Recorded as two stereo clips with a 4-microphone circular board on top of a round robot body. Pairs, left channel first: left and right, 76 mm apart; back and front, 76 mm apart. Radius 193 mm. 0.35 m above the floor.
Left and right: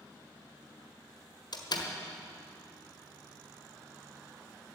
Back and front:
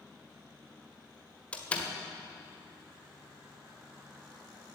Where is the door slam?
110° left, 1.7 m.